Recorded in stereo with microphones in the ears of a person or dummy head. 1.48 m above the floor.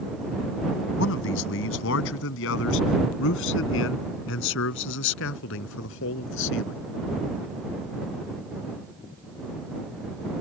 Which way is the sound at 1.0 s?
75° left (ahead or behind).